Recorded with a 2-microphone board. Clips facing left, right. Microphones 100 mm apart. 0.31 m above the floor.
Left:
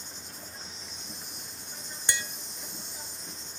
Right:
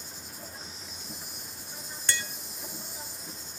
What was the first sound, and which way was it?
An insect, 5° right (ahead or behind).